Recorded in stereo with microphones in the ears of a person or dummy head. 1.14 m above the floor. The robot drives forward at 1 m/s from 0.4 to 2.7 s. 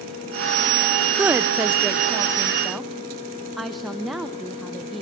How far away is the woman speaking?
About 0.7 m.